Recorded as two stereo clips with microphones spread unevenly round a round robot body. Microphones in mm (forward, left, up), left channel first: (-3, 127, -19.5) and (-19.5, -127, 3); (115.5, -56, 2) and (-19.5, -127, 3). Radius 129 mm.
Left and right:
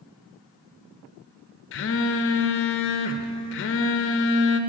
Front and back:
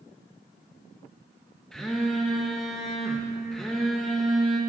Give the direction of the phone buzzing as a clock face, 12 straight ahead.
8 o'clock.